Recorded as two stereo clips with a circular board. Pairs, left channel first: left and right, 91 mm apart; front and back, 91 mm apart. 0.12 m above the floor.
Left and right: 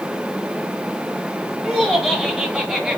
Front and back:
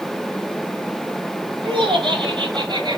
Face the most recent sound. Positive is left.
turn(degrees=-170)